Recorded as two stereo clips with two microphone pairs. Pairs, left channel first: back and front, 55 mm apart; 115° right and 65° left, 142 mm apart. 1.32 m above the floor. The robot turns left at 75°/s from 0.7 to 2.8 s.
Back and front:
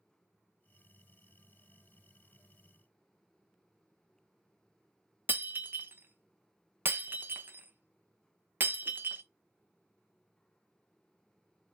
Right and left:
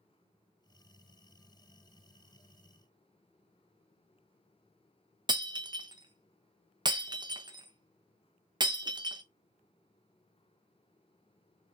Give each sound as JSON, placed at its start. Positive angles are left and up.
{"t": 5.3, "sound": "breaking glass", "azimuth_deg": 20, "distance_m": 0.5}